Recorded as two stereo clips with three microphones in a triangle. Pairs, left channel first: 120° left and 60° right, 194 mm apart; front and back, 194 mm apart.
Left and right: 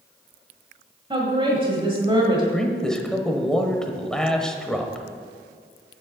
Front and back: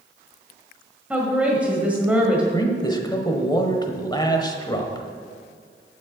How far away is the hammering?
No hammering in this recording.